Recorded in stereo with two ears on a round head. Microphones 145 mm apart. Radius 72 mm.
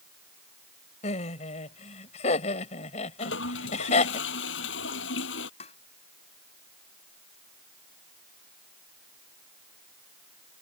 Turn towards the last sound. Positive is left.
turn(degrees=40)  # may be behind; listen again after turning